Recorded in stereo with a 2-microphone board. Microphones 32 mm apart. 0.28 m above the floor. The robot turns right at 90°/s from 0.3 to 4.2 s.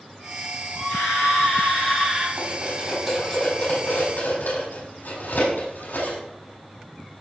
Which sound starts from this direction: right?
Cutlery clinking, at 2.4 s.